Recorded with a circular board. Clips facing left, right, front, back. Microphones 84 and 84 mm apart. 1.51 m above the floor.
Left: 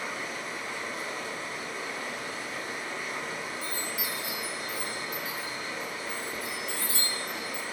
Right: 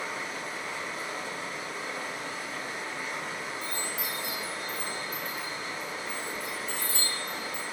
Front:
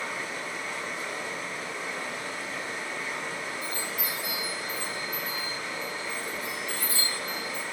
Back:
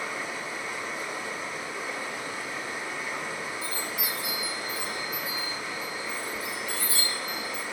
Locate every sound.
0.0 s running water: 110° right, 1.6 m
3.6 s a chime: 170° left, 1.3 m